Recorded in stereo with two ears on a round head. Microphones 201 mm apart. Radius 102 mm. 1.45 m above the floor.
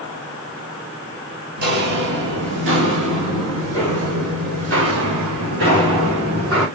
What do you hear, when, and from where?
1.6 s footsteps: 50° right (ahead or behind), 2.5 m; by 6.7 s 60° right (ahead or behind), 4.5 m